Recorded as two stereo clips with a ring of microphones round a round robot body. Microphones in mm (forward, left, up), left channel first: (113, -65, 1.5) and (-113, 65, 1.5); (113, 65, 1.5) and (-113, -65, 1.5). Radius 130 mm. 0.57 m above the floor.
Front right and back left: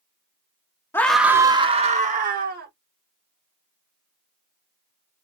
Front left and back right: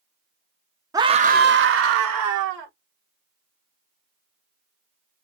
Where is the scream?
95° right, 0.6 m; by 2.7 s 160° right, 1.2 m.